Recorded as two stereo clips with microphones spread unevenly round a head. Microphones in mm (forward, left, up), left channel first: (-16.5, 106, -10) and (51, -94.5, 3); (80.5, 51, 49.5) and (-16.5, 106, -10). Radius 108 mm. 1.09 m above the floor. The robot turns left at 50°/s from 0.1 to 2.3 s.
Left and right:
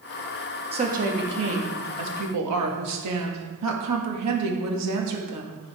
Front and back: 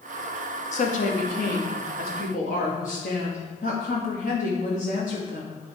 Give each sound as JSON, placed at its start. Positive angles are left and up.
{"t": 0.7, "sound": "a woman speaking", "azimuth_deg": -5, "distance_m": 1.6}